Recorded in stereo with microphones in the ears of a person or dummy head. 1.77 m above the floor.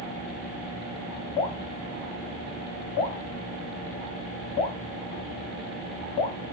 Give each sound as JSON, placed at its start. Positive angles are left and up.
{"t": 1.4, "sound": "dripping", "side_deg": 35, "distance_m": 4.5}